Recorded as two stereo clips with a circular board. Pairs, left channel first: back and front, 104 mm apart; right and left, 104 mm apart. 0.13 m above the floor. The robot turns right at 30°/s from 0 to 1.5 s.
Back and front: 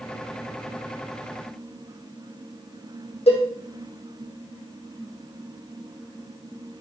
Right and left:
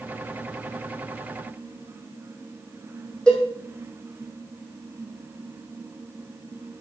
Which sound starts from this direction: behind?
A cowbell, at 3.3 s.